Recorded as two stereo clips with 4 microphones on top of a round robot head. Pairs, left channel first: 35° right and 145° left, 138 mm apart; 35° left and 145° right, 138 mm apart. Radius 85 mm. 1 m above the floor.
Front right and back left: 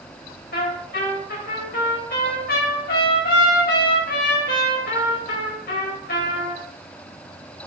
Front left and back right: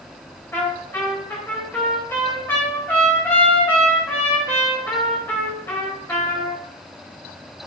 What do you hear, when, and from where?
0.5 s a trumpet: 40° right, 4 m